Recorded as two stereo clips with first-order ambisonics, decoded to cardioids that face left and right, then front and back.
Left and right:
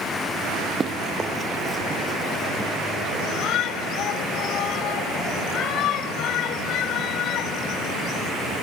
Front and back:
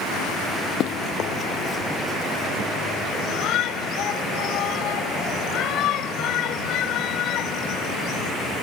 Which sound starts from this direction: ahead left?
A shout, at 3.2 s.